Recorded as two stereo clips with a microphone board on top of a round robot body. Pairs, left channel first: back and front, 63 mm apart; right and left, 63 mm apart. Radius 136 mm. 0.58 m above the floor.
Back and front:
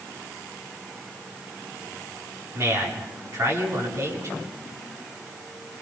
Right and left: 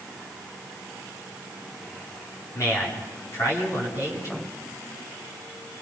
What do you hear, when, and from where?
2.5 s a man speaking: 50° right, 8 m